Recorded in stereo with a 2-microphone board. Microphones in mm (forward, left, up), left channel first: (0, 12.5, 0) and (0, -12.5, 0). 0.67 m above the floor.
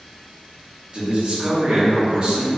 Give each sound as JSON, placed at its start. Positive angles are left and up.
{"t": 0.9, "sound": "a man speaking", "side_deg": -45, "distance_m": 0.8}